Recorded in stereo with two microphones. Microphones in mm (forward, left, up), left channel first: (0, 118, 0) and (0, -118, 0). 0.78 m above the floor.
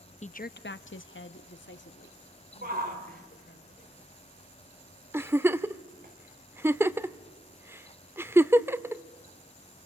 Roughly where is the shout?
Right.